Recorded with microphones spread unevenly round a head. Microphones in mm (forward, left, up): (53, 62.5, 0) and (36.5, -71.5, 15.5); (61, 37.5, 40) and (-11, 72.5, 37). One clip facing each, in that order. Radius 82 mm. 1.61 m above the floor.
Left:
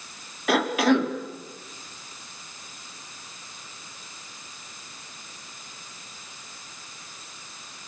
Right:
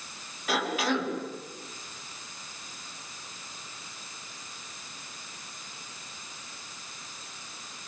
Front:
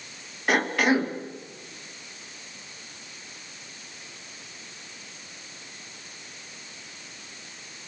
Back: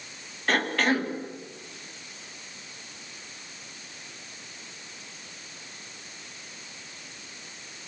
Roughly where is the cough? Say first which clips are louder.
Left 8 dB, front 2 dB; ahead left.